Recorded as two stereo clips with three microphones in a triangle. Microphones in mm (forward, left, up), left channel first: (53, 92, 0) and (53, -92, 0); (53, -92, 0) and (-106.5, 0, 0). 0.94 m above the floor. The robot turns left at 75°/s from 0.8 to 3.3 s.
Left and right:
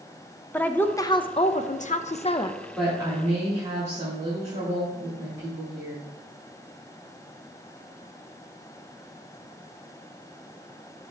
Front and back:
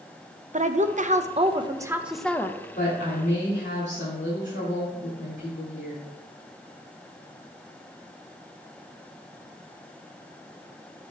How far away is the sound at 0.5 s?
About 0.5 m.